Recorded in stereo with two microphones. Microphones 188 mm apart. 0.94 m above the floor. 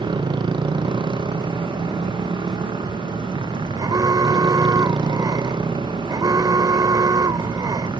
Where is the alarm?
20° right (ahead or behind).